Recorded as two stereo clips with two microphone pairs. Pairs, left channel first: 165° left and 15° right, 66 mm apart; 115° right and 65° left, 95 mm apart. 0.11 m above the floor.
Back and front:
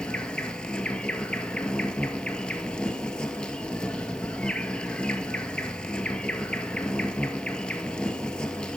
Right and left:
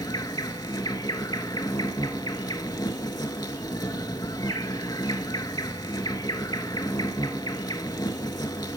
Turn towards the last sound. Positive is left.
turn(degrees=-130)